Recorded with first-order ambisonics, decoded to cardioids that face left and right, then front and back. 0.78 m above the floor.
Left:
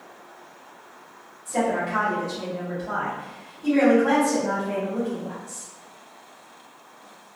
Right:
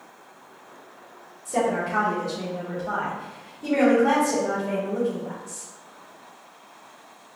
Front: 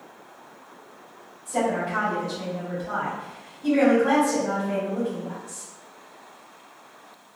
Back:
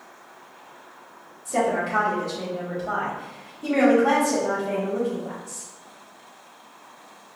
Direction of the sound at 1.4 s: 135° right.